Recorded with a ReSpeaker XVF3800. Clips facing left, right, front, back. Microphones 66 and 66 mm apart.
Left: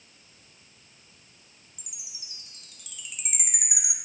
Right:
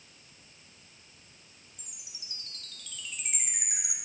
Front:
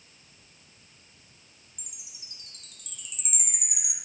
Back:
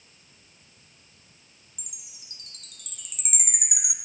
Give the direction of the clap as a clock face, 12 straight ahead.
No clap in this recording.